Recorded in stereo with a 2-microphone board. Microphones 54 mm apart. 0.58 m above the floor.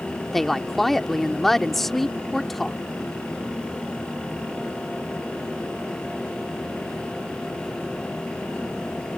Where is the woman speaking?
5° left (ahead or behind).